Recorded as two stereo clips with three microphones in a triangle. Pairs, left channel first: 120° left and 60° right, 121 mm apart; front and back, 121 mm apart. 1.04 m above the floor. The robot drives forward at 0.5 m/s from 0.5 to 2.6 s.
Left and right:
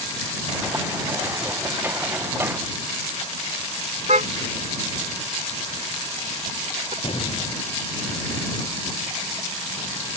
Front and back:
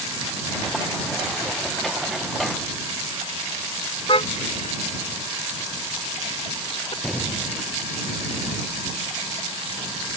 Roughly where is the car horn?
Ahead right.